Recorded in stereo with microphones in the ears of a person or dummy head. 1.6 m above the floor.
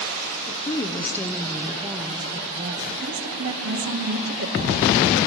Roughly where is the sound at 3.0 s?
Right.